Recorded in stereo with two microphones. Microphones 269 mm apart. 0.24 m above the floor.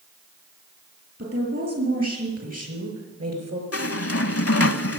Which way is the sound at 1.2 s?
60° right (ahead or behind).